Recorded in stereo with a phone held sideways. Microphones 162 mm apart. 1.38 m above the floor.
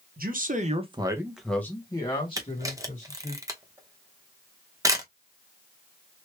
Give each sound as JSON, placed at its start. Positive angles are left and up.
{"t": 0.2, "sound": "a man speaking", "side_deg": -65, "distance_m": 1.1}
{"t": 2.4, "sound": "a camera shutter", "side_deg": -20, "distance_m": 0.7}